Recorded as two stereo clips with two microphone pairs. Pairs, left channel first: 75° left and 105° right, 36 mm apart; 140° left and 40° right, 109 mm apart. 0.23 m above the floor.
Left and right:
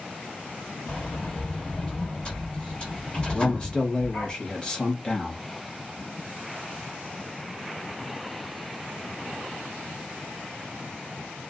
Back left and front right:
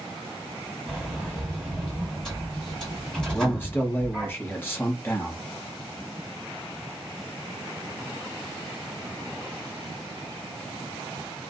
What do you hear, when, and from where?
0.9 s a sliding door: 55° left, 1.7 m
3.3 s a man speaking: 95° left, 1.0 m